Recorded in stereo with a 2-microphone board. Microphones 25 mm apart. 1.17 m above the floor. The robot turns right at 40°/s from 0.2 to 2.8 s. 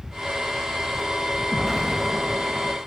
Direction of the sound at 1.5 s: 165° left.